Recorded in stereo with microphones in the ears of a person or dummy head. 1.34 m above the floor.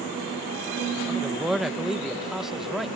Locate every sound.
1.1 s a man speaking: 5° right (ahead or behind)